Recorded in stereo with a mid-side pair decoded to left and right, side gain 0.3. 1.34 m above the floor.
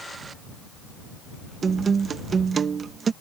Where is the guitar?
65° right.